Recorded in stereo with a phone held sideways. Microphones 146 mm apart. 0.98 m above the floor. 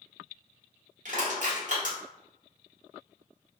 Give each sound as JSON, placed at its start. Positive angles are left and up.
{"t": 1.1, "sound": "crushing", "side_deg": -60, "distance_m": 1.2}